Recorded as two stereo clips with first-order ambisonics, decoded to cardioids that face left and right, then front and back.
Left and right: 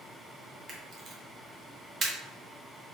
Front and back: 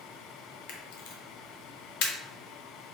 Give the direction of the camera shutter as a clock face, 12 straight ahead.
1 o'clock.